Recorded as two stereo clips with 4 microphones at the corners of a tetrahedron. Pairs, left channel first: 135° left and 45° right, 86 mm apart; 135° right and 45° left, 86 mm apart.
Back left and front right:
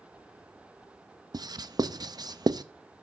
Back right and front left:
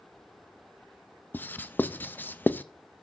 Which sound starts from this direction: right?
Writing, at 1.3 s.